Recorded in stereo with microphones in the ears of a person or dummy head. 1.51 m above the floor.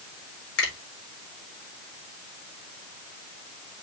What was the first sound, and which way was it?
A finger snap, 75° left (ahead or behind).